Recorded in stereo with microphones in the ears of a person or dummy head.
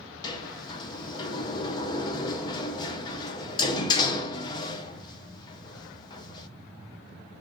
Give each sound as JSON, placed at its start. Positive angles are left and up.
{"t": 0.2, "sound": "a sliding door", "side_deg": 25, "distance_m": 0.6}